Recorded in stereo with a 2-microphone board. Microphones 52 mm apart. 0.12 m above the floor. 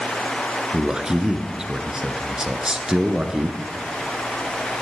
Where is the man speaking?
15° right (ahead or behind), 1.3 m.